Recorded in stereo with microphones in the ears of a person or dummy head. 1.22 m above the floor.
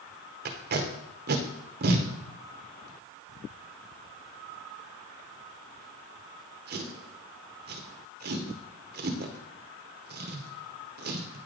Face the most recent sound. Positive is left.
turn(degrees=-50)  # may be behind; listen again after turning